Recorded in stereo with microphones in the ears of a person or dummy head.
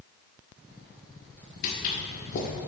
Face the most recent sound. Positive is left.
turn(degrees=35)  # may be behind; listen again after turning